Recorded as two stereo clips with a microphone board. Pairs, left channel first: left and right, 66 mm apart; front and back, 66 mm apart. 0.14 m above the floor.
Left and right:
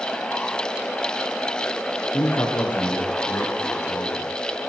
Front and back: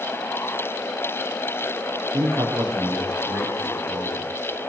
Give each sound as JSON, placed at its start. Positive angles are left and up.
{"t": 2.1, "sound": "a man speaking", "azimuth_deg": 155, "distance_m": 7.0}